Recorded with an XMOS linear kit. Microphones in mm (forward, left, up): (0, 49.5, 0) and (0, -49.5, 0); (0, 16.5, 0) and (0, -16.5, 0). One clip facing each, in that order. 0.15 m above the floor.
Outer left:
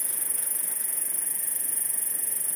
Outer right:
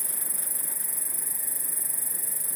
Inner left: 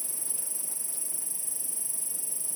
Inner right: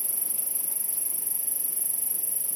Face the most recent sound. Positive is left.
turn(degrees=-10)  # may be behind; listen again after turning